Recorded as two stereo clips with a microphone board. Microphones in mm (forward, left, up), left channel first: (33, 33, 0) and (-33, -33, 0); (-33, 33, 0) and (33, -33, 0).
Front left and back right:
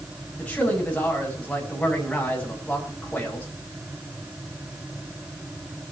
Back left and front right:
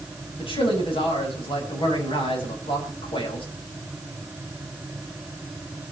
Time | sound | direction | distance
0.4 | a man speaking | 120° left | 8 m